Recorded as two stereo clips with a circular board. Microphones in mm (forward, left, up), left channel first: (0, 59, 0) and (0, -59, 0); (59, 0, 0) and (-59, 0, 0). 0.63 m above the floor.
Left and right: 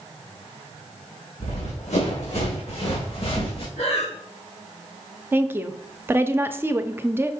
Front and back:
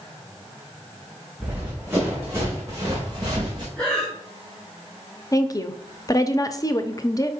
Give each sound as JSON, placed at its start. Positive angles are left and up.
{"t": 1.4, "sound": "running footsteps", "azimuth_deg": 105, "distance_m": 3.5}
{"t": 3.8, "sound": "breathing", "azimuth_deg": 80, "distance_m": 2.5}
{"t": 5.3, "sound": "a woman speaking", "azimuth_deg": -30, "distance_m": 0.7}